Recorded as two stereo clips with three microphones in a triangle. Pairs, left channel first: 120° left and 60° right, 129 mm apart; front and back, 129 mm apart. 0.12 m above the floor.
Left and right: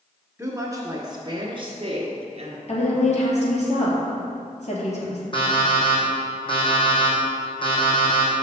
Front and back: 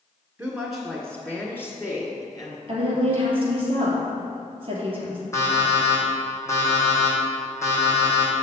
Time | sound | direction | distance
0.4 | a woman speaking | 110° right | 1.2 m
2.7 | a woman speaking | 140° left | 2.5 m
5.3 | an alarm clock | 70° left | 2.5 m